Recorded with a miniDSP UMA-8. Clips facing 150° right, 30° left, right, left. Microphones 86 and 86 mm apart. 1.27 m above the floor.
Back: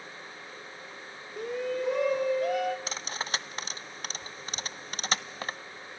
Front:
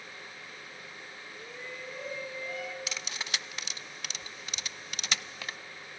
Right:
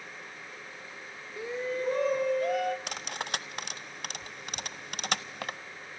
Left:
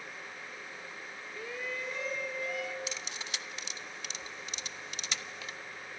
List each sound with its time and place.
1.4 s a shout: 165° right, 0.6 m; by 2.8 s 125° right, 1.6 m
2.9 s cutlery clinking: 105° right, 0.7 m